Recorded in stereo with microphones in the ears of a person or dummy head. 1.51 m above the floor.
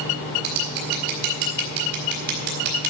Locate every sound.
0.4 s scissors: 50° right (ahead or behind), 3.5 m